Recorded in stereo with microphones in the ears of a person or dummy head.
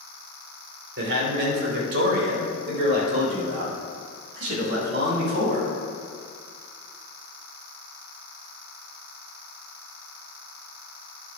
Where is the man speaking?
60° right (ahead or behind), 3.5 m; by 5.7 s 70° right (ahead or behind), 7.5 m.